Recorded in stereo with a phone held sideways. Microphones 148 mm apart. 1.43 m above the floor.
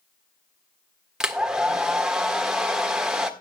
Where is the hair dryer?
5° right (ahead or behind), 1.5 m.